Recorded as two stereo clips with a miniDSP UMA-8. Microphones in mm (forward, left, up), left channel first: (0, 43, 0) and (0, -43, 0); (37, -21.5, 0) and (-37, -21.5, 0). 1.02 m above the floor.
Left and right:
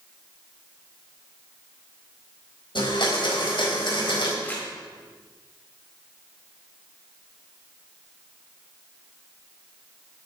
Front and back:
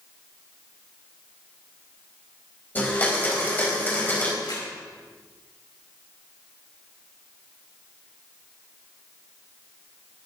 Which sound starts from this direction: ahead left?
A blender, at 2.8 s.